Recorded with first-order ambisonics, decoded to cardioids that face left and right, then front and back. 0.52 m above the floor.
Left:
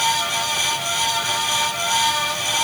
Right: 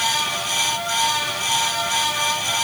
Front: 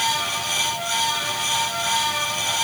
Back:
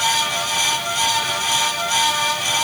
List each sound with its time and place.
Only background noise.